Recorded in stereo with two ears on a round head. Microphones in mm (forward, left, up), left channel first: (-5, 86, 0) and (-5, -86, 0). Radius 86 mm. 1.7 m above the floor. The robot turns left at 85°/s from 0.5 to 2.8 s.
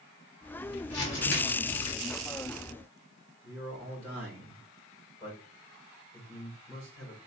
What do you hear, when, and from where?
0.9 s crumpling: 105° left, 2.5 m; by 1.9 s 20° left, 2.5 m
3.4 s a man speaking: 15° right (ahead or behind), 3.5 m